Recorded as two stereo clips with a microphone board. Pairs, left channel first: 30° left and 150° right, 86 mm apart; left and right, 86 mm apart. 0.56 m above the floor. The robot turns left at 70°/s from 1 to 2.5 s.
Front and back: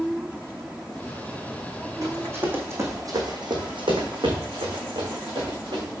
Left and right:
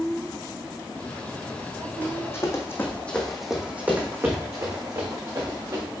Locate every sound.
2.0 s running footsteps: 165° left, 2.5 m; by 5.8 s 130° right, 4 m